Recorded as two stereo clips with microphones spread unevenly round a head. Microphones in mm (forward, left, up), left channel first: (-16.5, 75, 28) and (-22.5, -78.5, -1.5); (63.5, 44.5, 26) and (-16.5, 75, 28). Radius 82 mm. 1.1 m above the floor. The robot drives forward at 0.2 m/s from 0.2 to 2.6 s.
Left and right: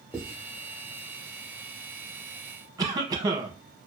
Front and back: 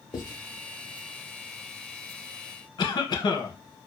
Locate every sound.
0.1 s writing: 10° right, 0.9 m; by 0.3 s 15° right, 0.8 m
2.8 s a cough: 40° right, 0.6 m